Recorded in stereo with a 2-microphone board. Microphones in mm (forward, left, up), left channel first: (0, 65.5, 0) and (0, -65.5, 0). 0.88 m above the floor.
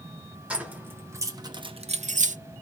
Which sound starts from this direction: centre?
Keys jangling, at 0.5 s.